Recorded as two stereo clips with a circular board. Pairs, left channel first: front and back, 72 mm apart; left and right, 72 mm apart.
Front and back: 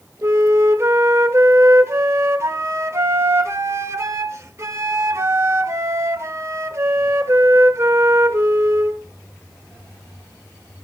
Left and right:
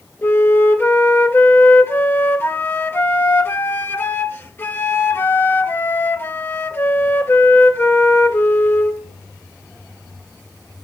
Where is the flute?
140° left, 1.3 m.